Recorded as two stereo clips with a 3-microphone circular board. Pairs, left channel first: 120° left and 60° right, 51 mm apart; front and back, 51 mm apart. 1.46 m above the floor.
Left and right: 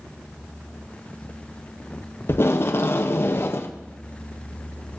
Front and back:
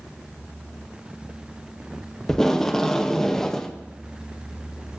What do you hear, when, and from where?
2.3 s tape being pulled: 80° left, 0.5 m